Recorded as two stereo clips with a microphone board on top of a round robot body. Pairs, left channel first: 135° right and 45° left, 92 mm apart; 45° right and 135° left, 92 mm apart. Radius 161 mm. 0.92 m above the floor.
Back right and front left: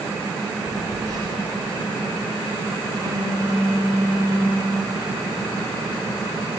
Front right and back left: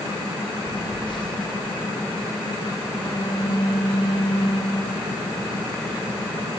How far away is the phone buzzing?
About 5.5 m.